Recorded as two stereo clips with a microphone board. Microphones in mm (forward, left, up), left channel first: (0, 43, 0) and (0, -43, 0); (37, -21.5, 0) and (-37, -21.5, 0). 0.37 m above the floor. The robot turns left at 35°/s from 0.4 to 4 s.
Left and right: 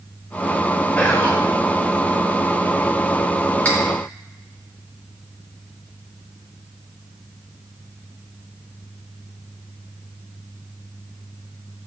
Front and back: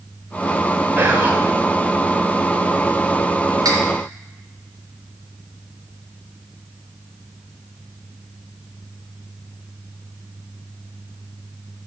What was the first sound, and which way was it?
Whispering, 150° left.